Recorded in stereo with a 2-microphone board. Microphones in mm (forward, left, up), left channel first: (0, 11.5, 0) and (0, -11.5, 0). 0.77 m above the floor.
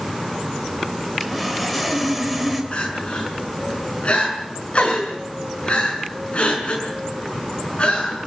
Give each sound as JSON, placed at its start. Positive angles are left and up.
{"t": 1.2, "sound": "sawing", "side_deg": 0, "distance_m": 3.5}
{"t": 2.7, "sound": "crying", "side_deg": 50, "distance_m": 6.0}